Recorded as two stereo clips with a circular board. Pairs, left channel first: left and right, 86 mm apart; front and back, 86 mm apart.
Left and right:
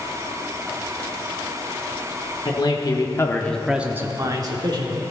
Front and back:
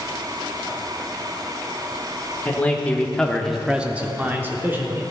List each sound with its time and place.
2.5 s a man speaking: 70° left, 1.2 m; by 5.0 s 115° right, 1.3 m